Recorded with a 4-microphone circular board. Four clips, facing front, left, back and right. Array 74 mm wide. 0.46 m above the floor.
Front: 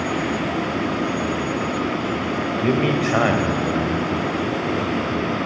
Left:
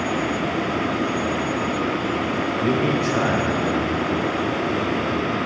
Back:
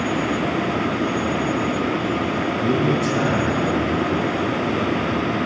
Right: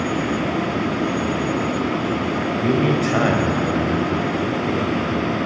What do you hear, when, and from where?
2.6 s a man speaking: 15° left, 1.8 m; by 5.5 s 60° right, 4.5 m